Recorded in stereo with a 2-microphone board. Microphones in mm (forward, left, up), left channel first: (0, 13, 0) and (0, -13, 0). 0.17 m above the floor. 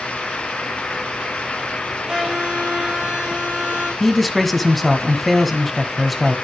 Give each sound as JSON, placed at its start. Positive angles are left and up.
{"t": 2.1, "sound": "a violin", "side_deg": -40, "distance_m": 6.0}
{"t": 4.0, "sound": "a man speaking", "side_deg": 5, "distance_m": 1.5}